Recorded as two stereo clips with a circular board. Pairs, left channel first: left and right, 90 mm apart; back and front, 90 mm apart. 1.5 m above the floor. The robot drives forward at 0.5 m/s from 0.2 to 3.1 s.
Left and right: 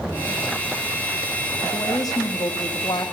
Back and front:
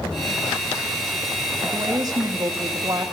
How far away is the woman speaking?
About 2.5 m.